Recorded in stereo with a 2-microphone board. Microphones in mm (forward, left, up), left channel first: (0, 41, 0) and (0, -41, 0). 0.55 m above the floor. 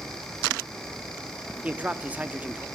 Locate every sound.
1.6 s a man speaking: 20° right (ahead or behind), 1.1 m